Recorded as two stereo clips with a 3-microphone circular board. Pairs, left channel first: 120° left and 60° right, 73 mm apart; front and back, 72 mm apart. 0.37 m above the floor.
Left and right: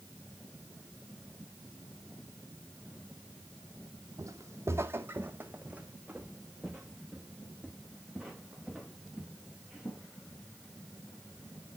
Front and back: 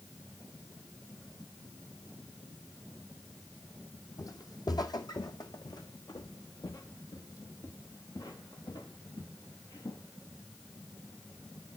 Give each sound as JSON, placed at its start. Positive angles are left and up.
{"t": 4.2, "sound": "footsteps", "azimuth_deg": -25, "distance_m": 0.9}